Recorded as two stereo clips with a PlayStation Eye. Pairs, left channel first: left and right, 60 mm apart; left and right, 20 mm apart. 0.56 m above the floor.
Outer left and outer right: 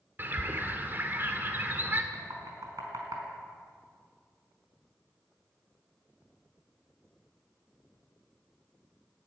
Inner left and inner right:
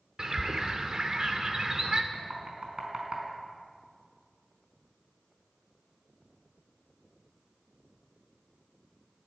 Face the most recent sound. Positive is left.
turn(degrees=-65)  # may be behind; listen again after turning